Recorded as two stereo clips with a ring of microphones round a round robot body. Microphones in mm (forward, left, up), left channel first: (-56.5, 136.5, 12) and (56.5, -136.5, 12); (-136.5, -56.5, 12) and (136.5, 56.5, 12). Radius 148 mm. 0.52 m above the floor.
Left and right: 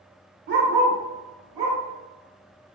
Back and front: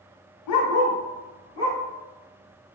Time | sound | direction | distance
0.5 | a dog barking | 125° right | 0.6 m